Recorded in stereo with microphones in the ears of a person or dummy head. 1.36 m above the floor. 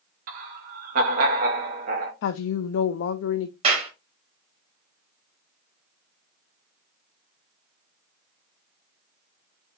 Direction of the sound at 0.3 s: 45° right (ahead or behind).